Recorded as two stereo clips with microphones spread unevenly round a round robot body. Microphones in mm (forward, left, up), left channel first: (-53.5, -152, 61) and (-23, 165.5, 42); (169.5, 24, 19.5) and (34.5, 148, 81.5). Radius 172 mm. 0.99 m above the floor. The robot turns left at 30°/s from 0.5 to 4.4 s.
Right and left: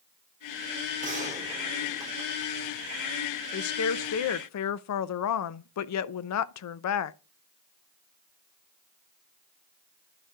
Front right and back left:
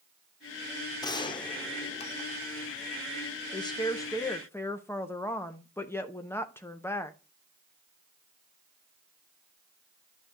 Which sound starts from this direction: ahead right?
A woman speaking, at 3.5 s.